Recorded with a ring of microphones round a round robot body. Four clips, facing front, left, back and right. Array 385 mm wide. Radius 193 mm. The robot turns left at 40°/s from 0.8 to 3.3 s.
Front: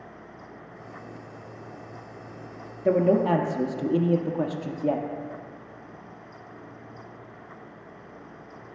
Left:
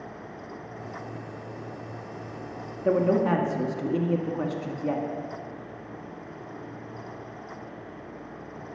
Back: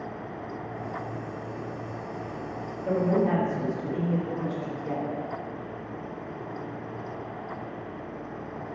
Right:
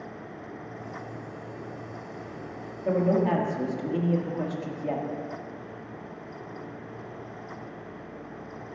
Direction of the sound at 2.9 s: 35° left.